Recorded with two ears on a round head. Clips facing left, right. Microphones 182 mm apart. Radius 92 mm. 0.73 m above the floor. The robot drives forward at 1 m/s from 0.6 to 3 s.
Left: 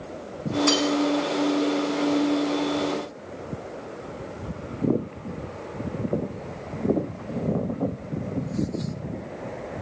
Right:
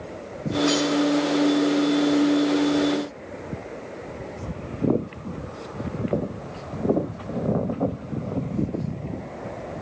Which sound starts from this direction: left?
Cutlery clinking, at 0.7 s.